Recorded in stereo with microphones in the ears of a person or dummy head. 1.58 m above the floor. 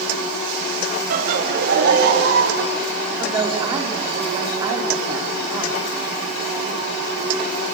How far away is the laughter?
About 3.5 m.